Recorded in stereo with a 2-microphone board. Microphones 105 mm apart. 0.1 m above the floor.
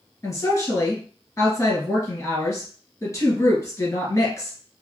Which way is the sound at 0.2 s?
30° left (ahead or behind).